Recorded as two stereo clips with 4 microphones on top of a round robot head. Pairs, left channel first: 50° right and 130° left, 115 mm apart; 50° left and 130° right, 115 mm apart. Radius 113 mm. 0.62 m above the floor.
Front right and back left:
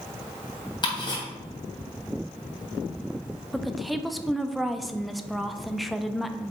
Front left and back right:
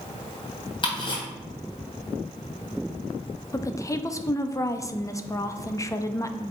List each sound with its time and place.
0.8 s ticking: straight ahead, 2.5 m
3.5 s a woman speaking: 40° left, 0.7 m